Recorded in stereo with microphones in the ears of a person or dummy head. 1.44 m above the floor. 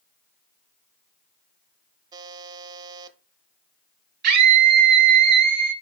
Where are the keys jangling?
No keys jangling in this recording.